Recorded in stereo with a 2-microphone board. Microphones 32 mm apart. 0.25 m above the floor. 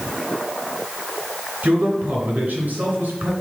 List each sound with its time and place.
1.6 s a man speaking: 60° right (ahead or behind), 2.5 m